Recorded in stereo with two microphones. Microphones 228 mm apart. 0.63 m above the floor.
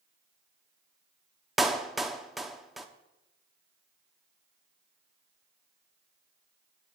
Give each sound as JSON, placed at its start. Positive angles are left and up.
{"t": 1.6, "sound": "a clap", "side_deg": 0, "distance_m": 0.6}